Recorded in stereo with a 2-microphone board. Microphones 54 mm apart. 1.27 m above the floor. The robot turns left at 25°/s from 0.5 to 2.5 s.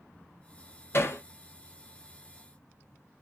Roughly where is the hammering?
Left.